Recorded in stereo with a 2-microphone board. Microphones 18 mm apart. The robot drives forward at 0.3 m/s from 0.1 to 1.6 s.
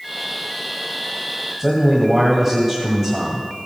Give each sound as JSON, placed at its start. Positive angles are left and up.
{"t": 1.6, "sound": "a man speaking", "side_deg": -10, "distance_m": 1.5}